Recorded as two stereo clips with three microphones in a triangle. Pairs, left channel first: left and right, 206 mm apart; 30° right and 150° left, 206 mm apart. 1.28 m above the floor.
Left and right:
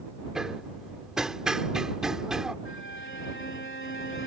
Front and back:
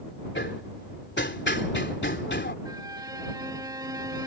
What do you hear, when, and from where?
0.3 s hammering: 5° right
2.6 s a violin: 80° left